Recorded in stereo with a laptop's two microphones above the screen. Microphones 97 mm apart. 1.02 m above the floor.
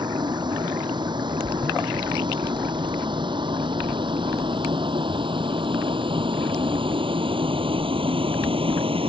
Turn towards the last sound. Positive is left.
turn(degrees=-70)  # may be behind; listen again after turning